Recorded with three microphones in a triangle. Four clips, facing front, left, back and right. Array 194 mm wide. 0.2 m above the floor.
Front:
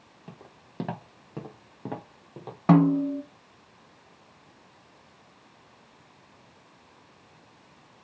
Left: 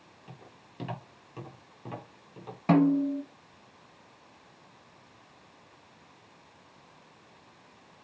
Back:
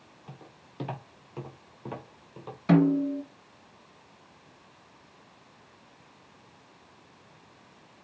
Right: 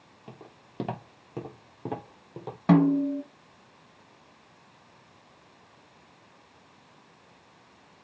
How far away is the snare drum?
About 1.6 m.